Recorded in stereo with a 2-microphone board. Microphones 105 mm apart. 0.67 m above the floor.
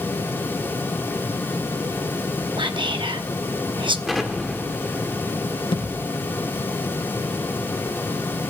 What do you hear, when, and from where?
2.6 s whispering: 50° right (ahead or behind), 0.8 m
4.1 s an explosion: centre (ahead or behind), 1.8 m
5.7 s a thud: 55° left (ahead or behind), 4.5 m